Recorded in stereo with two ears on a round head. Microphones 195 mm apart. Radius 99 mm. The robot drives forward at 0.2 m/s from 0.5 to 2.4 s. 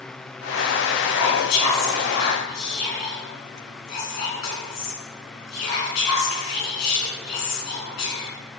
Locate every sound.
1.1 s whispering: 85° left, 2.5 m; by 8.3 s 90° left, 2.5 m